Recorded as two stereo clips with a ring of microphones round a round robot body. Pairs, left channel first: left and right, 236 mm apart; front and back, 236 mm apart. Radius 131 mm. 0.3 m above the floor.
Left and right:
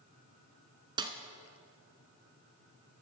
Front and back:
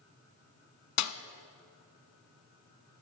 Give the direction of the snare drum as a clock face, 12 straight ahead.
1 o'clock.